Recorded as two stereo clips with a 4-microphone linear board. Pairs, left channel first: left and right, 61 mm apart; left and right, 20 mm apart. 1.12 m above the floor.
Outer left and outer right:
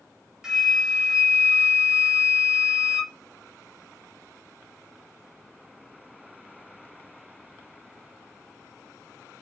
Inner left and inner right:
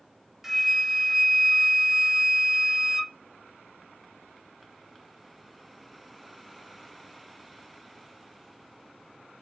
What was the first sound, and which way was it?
A flute, 10° right (ahead or behind).